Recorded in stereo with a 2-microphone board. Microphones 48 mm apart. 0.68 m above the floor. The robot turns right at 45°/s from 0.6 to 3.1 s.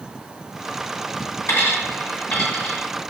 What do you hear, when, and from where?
1.5 s a dropped coin: 65° left (ahead or behind), 1.8 m; by 2.8 s 5° left (ahead or behind), 1.8 m